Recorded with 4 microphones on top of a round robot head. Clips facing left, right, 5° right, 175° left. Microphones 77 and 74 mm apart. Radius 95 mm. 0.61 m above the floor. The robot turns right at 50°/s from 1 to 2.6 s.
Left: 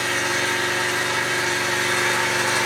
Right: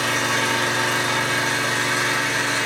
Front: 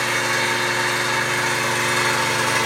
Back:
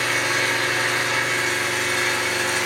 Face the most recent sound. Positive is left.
turn(degrees=15)